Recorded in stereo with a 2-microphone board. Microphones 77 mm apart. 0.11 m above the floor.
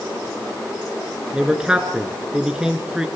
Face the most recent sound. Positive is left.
turn(degrees=-10)  # may be behind; listen again after turning